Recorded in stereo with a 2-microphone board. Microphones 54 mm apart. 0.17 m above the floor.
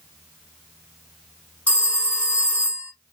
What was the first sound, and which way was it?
A phone ringing, 25° left (ahead or behind).